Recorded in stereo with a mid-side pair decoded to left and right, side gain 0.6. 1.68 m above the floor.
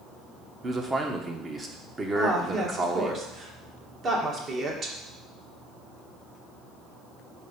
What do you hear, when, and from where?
0.6 s a man speaking: 30° right, 1.4 m
2.1 s a woman speaking: 45° right, 2 m